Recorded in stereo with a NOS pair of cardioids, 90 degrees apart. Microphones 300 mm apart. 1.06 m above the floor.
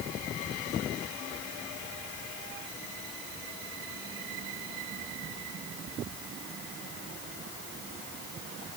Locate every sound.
Only background noise.